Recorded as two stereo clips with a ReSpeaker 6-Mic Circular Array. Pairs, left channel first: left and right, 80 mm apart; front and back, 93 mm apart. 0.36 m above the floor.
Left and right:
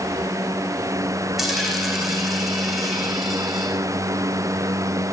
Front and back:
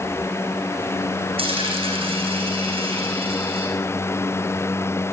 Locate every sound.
1.4 s a dropped coin: 175° right, 5 m